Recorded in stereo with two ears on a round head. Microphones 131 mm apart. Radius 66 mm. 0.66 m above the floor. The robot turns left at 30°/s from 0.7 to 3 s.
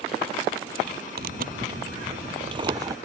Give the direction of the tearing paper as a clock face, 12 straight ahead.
3 o'clock.